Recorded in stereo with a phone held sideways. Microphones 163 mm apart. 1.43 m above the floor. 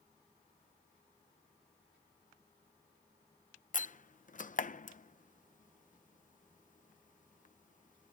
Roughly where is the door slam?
Left.